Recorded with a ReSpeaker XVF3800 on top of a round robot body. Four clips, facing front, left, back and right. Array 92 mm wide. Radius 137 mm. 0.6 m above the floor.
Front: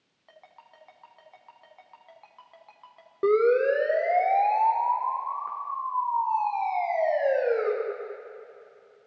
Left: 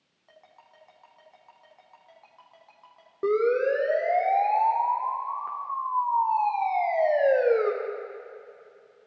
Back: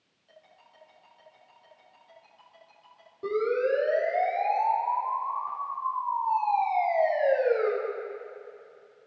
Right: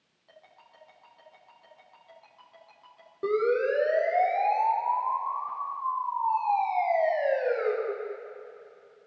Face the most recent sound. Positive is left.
turn(degrees=80)